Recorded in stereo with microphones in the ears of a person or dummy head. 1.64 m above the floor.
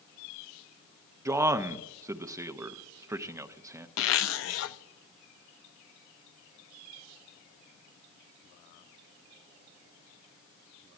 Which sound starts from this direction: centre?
A man speaking, at 1.2 s.